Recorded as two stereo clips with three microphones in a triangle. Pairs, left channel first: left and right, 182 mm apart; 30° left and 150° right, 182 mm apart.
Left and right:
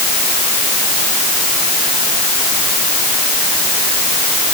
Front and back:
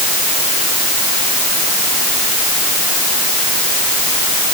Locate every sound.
Only background noise.